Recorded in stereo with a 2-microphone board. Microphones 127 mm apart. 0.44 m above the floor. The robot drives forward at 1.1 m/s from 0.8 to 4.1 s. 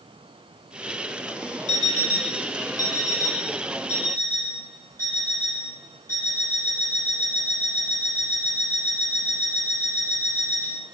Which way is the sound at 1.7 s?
70° left (ahead or behind).